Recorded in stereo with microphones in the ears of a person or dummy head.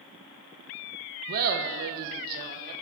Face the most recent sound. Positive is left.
turn(degrees=-50)  # may be behind; listen again after turning